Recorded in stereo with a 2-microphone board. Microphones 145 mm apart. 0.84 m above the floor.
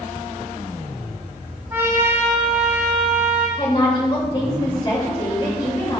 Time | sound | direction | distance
1.7 | a trumpet | 15° right (ahead or behind) | 3.5 m
3.6 | a woman speaking | 35° left (ahead or behind) | 3 m